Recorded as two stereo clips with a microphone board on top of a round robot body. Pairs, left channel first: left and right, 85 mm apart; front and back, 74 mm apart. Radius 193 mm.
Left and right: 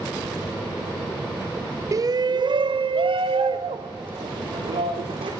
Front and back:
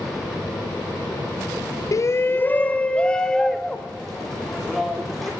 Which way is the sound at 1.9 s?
40° right.